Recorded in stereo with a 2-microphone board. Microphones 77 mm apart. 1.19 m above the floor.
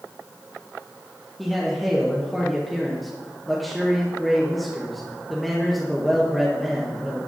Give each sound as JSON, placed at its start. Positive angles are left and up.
{"t": 1.4, "sound": "a man speaking", "side_deg": 0, "distance_m": 1.6}